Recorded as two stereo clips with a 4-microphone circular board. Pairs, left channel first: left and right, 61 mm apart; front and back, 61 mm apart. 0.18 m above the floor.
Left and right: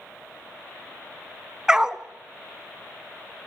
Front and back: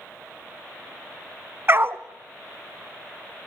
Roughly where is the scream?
I don't hear a scream.